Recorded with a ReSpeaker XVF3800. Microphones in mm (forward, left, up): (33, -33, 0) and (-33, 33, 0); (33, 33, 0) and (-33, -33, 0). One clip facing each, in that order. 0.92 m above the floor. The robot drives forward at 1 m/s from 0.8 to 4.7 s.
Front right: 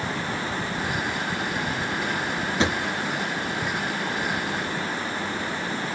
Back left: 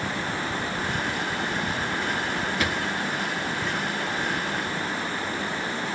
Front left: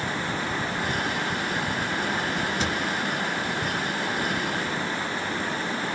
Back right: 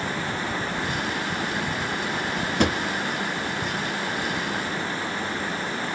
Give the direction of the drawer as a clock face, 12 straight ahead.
4 o'clock.